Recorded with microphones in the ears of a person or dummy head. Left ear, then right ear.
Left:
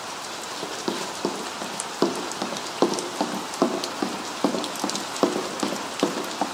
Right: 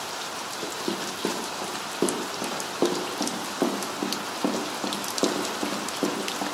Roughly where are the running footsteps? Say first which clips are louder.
Left 2 dB; left.